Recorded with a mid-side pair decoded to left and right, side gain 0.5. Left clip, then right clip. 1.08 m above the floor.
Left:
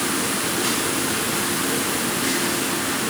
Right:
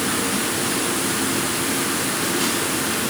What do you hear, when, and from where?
Only background noise.